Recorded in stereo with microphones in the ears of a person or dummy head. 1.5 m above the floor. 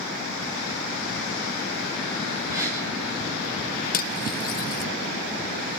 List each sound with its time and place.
2.5 s a gasp: 10° right (ahead or behind), 9.5 m
3.9 s cutlery clinking: 55° left (ahead or behind), 1.1 m